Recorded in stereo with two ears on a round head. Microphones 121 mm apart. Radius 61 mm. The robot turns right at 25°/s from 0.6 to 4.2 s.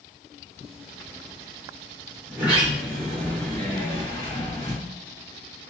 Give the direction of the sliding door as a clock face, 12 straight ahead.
12 o'clock.